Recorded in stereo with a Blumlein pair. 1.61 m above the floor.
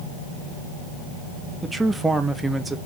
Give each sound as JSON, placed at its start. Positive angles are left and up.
{"t": 1.6, "sound": "a man speaking", "azimuth_deg": -10, "distance_m": 0.9}